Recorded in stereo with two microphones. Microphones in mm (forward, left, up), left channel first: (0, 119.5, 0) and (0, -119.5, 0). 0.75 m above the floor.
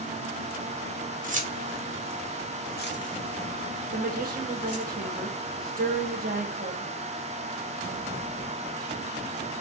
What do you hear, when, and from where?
1.2 s keys jangling: 35° right (ahead or behind), 0.8 m; by 4.8 s 80° left, 1.6 m
3.9 s a woman speaking: 35° right (ahead or behind), 0.8 m